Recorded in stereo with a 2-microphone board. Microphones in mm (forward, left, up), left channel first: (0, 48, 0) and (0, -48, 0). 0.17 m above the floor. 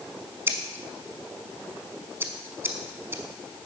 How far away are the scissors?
About 0.8 m.